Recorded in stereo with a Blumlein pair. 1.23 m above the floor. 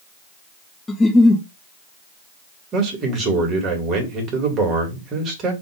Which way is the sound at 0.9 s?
10° left.